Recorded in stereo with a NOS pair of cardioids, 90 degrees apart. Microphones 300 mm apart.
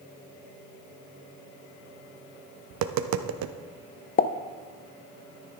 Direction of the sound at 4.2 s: 30° left.